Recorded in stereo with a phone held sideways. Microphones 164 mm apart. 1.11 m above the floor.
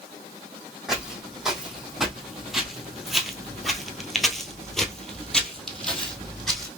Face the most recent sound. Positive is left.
turn(degrees=5)  # may be behind; listen again after turning